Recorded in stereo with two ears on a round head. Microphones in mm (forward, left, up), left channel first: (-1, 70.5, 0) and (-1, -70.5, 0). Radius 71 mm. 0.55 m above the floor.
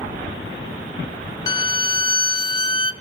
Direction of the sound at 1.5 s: 30° left (ahead or behind).